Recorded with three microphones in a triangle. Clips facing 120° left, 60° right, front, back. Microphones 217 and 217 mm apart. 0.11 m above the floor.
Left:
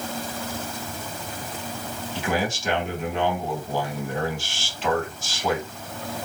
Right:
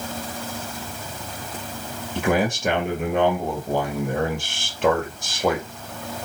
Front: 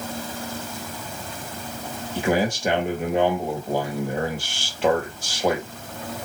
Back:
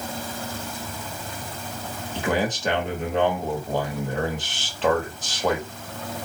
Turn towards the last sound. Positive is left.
turn(degrees=-75)